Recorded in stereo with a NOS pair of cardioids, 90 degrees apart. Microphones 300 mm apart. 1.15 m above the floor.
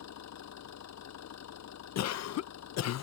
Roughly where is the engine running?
Ahead left.